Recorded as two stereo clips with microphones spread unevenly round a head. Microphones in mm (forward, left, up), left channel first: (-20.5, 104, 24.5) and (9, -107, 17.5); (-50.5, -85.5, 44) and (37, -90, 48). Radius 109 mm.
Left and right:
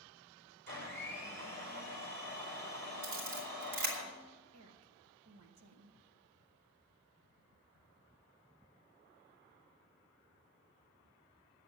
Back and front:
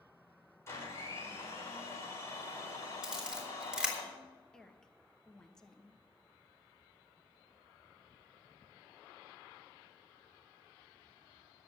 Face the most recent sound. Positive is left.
turn(degrees=-100)